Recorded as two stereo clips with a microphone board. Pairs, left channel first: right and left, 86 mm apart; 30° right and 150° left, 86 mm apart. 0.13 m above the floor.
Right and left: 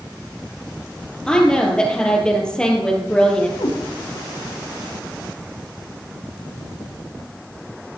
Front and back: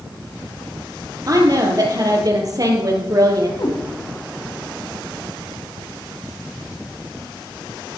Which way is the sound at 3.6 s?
70° right.